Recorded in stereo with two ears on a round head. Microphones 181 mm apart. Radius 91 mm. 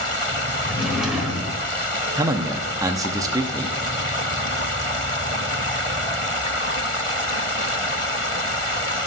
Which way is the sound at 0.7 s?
5° right (ahead or behind).